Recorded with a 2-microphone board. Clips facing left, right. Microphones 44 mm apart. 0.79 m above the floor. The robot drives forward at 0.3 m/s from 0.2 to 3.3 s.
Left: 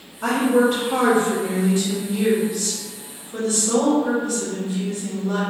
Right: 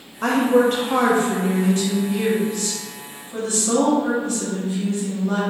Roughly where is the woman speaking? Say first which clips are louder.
Right 1 dB; right.